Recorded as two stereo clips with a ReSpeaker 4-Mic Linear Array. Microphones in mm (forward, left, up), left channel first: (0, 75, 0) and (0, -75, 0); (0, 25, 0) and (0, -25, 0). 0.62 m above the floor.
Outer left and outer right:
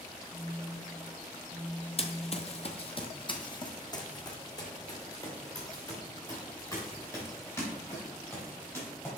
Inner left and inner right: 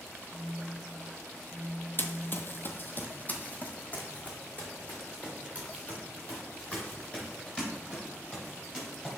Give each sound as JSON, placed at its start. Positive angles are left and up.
{"t": 0.3, "sound": "a phone buzzing", "side_deg": 35, "distance_m": 1.3}
{"t": 2.0, "sound": "running footsteps", "side_deg": 40, "distance_m": 0.7}